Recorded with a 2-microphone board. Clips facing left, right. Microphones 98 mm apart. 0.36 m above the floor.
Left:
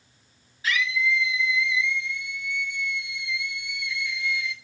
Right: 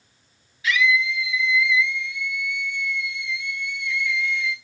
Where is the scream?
35° left (ahead or behind), 5 m; by 4.5 s 15° left (ahead or behind), 6 m.